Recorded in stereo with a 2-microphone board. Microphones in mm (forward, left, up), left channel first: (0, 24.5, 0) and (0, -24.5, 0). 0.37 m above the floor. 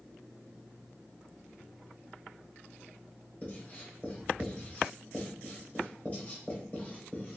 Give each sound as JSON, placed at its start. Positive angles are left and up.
{"t": 3.4, "sound": "writing", "side_deg": 30, "distance_m": 1.2}